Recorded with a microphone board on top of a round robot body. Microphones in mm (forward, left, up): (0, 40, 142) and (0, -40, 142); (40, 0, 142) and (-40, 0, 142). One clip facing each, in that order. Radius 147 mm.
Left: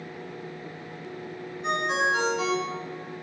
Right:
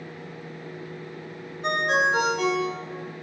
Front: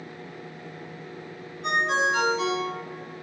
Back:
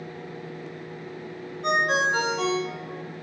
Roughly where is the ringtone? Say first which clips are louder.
Right 3 dB, back 1 dB; behind right.